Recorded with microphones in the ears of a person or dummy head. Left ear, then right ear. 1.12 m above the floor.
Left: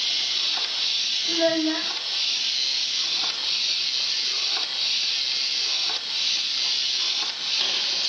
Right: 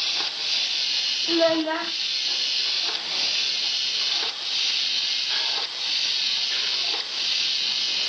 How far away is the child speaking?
About 0.8 m.